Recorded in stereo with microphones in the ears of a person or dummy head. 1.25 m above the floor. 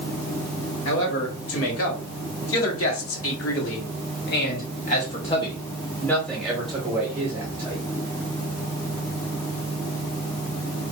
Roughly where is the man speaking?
Left.